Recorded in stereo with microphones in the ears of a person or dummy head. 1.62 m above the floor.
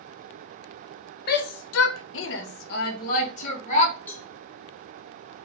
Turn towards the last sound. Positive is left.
turn(degrees=15)  # may be behind; listen again after turning